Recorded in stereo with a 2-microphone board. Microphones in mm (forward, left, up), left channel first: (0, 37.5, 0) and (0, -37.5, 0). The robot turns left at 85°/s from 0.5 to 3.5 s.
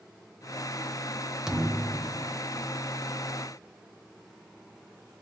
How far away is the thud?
About 0.6 m.